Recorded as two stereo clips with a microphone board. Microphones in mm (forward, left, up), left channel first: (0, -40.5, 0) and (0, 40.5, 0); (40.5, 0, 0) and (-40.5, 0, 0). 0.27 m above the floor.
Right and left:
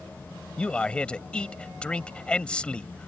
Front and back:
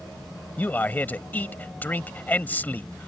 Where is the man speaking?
30° right.